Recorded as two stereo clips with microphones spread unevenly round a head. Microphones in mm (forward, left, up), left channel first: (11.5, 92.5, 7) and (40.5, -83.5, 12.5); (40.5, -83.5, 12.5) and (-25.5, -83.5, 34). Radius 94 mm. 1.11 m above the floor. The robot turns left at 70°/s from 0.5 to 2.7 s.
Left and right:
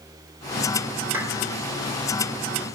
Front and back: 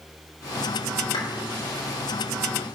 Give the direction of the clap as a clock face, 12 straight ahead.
12 o'clock.